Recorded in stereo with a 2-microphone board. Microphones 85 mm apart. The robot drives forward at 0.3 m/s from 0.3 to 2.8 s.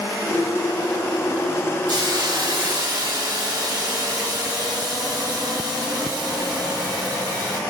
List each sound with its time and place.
1.9 s a hiss: 55° right (ahead or behind), 0.8 m; by 7.6 s 50° right (ahead or behind), 0.8 m